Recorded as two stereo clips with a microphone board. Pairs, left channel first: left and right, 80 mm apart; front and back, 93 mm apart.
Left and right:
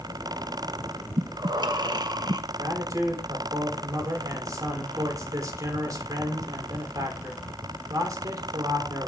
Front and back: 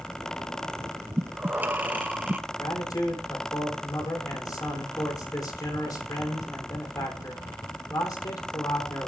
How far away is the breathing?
About 0.9 m.